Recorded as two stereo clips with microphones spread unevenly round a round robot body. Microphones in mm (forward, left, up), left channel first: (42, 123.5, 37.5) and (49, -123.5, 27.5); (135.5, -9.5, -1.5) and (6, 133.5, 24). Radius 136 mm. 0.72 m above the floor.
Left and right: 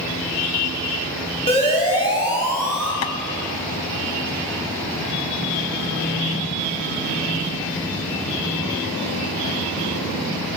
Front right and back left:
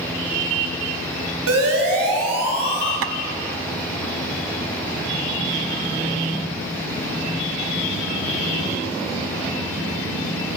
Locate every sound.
1.5 s a siren: 160° left, 6.5 m; by 2.9 s 175° left, 6.5 m
3.0 s tapping: 125° left, 0.5 m